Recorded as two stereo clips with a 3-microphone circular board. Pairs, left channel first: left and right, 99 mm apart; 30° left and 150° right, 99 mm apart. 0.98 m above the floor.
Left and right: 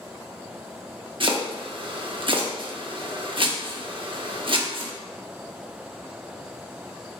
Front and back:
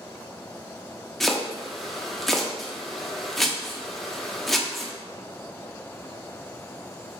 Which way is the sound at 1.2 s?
60° right.